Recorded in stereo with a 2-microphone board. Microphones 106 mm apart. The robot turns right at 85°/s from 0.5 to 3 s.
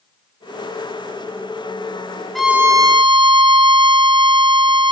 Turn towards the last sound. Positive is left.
turn(degrees=-125)